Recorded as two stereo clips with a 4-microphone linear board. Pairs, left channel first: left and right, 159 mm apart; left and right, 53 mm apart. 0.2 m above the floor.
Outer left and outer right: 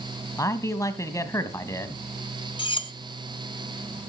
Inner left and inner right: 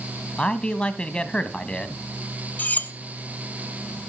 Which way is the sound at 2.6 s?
35° left (ahead or behind).